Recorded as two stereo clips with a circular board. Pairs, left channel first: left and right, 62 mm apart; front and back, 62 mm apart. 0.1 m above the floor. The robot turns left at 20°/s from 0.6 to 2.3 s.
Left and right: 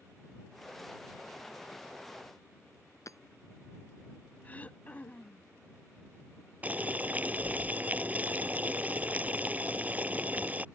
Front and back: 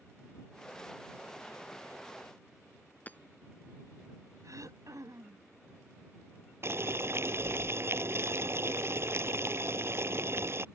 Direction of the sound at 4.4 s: 155° left.